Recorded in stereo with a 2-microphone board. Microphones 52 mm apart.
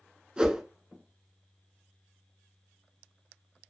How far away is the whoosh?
About 0.6 m.